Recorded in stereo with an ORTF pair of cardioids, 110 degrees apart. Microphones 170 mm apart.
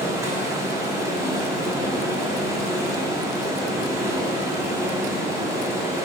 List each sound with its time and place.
0.0 s running water: 15° right, 0.9 m